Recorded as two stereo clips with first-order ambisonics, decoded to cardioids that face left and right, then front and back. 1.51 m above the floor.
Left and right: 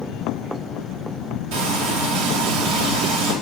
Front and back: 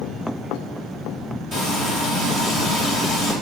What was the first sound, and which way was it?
Frying, 100° right.